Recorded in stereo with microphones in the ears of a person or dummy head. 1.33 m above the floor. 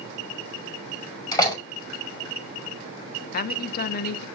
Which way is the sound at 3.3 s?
55° left (ahead or behind).